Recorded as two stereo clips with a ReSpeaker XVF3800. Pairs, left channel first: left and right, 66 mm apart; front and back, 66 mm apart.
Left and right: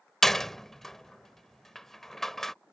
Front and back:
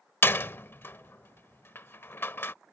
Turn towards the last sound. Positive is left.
turn(degrees=10)